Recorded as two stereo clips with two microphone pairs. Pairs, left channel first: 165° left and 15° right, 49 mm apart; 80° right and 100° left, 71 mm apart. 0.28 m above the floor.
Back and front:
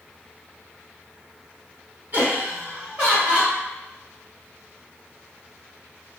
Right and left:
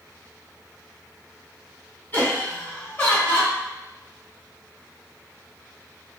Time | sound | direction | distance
2.1 | laughter | 30° right | 1.8 m